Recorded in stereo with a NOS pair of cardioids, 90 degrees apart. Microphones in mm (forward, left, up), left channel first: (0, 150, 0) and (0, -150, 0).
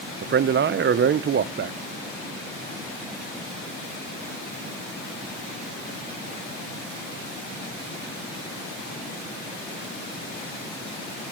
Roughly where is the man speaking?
Ahead right.